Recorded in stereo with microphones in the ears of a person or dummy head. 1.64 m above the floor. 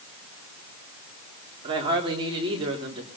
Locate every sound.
1.6 s a woman speaking: 25° right (ahead or behind), 3.5 m